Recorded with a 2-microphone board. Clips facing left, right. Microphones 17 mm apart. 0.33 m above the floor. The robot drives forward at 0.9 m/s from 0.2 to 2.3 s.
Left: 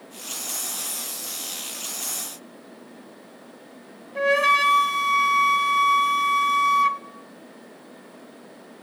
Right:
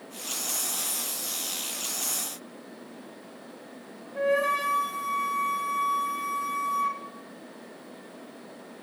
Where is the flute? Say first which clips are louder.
Left 6 dB; 70° left (ahead or behind), 0.8 m.